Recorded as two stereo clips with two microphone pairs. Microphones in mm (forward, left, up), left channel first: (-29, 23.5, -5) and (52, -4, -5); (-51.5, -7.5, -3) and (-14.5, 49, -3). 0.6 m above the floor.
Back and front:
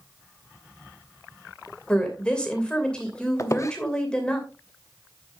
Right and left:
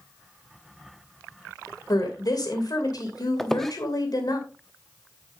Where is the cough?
No cough in this recording.